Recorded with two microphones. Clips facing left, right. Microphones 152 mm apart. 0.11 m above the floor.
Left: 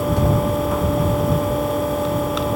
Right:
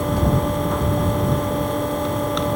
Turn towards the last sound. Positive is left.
No sound to turn to.